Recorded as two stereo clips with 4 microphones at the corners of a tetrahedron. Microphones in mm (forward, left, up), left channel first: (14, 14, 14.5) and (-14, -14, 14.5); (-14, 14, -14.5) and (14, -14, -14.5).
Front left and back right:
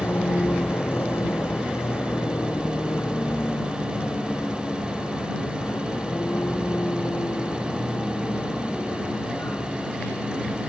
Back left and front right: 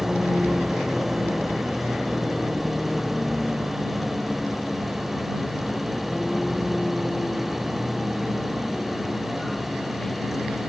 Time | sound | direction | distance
0.0 | a vehicle | 35° left | ?